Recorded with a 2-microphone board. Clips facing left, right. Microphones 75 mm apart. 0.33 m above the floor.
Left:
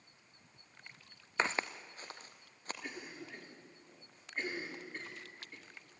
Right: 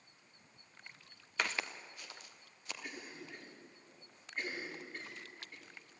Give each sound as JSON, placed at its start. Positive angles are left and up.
{"t": 1.4, "sound": "footsteps", "side_deg": 25, "distance_m": 1.1}
{"t": 2.8, "sound": "a cough", "side_deg": 25, "distance_m": 7.0}